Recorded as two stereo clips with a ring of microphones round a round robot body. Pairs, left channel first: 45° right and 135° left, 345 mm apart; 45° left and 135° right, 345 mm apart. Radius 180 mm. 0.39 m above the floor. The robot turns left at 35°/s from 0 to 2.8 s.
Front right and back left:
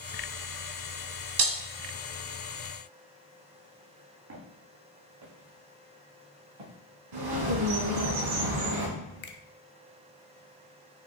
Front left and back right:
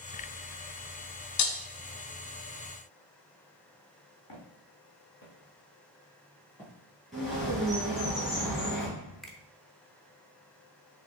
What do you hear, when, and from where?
1.4 s breaking glass: 85° left, 0.9 m; by 1.6 s 80° left, 0.9 m
4.3 s footsteps: 80° left, 1.9 m; by 6.7 s 140° left, 2.5 m
7.1 s a bird: 135° left, 2.5 m
9.2 s a finger snap: 40° right, 0.7 m